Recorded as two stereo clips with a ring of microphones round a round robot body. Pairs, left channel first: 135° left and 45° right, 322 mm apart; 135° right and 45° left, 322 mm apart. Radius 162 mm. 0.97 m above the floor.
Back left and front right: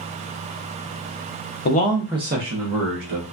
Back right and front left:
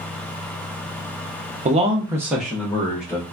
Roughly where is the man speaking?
Left.